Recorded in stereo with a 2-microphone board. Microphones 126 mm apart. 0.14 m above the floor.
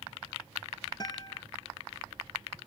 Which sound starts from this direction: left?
A guitar, at 1.0 s.